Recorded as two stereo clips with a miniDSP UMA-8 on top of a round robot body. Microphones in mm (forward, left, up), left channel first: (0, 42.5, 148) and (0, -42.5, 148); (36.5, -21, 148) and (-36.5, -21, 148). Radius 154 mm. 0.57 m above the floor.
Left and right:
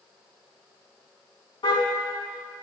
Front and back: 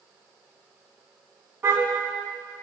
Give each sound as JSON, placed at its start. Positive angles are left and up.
{"t": 1.6, "sound": "a car horn", "azimuth_deg": 115, "distance_m": 3.5}